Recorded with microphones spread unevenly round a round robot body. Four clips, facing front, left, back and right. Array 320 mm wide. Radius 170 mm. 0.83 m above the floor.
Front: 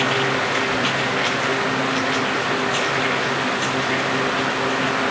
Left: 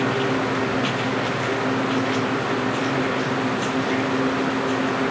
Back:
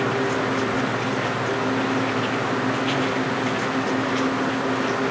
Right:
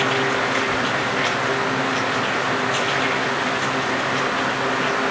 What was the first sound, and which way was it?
Only background noise.